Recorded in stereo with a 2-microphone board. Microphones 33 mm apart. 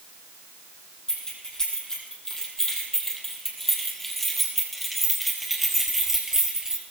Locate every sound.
1.1 s keys jangling: 20° left (ahead or behind), 5 m; by 6.8 s 15° right (ahead or behind), 2.5 m